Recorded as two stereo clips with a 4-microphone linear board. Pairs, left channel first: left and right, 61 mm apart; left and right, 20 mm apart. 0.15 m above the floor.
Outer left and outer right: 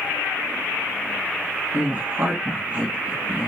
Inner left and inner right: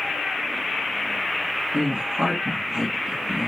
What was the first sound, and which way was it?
A woman speaking, 30° right (ahead or behind).